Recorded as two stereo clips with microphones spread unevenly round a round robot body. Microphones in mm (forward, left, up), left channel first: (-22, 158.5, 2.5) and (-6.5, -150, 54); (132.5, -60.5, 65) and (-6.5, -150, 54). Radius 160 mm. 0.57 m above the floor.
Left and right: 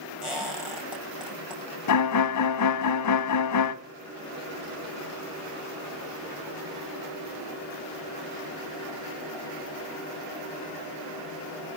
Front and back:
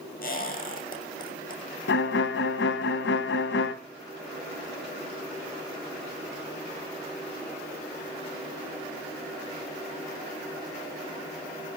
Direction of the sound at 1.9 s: 55° left.